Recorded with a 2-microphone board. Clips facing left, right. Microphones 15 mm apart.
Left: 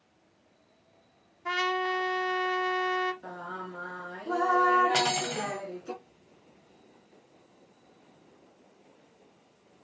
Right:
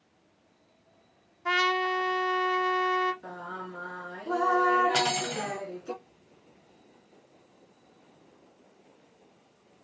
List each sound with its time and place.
1.4 s a trumpet: 15° right (ahead or behind), 0.5 m
3.2 s singing: 10° left (ahead or behind), 1.1 m
4.9 s cutlery clinking: 45° left (ahead or behind), 1.4 m